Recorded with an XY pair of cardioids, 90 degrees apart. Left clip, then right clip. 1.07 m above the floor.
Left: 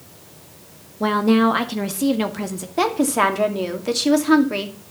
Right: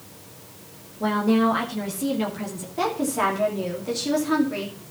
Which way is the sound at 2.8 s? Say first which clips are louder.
Left 5 dB; 65° left.